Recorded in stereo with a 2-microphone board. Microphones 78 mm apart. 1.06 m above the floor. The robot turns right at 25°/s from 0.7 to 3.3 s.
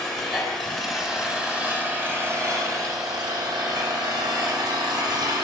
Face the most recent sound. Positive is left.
turn(degrees=-120)